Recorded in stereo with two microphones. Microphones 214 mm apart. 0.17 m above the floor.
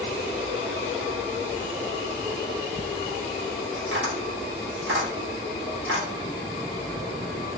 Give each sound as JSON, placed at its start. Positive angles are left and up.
{"t": 3.8, "sound": "tapping", "side_deg": -70, "distance_m": 1.7}